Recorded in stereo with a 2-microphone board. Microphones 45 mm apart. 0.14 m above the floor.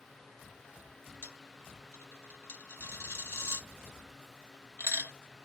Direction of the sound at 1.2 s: 65° left (ahead or behind).